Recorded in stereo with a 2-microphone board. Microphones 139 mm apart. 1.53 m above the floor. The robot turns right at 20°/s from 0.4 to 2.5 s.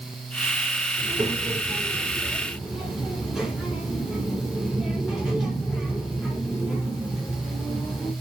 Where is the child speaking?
35° right, 4.5 m; by 8.1 s 5° right, 4.5 m.